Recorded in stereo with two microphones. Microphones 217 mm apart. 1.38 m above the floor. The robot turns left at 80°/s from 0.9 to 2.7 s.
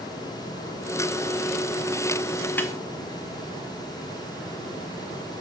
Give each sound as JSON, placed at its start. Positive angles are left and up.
{"t": 2.6, "sound": "a snare drum", "side_deg": 10, "distance_m": 0.8}